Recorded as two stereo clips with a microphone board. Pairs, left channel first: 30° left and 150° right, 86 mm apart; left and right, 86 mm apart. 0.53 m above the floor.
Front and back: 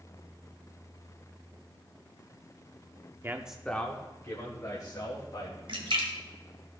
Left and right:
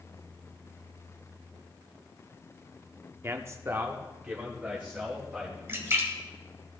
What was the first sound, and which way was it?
A man speaking, 120° right.